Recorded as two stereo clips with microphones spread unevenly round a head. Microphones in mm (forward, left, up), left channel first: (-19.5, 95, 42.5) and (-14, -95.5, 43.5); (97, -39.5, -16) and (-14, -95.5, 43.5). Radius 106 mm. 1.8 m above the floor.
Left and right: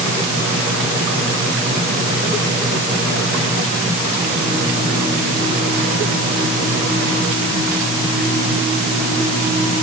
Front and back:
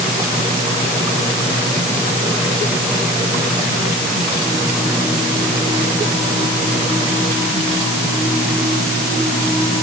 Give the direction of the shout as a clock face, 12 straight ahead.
I don't hear a shout.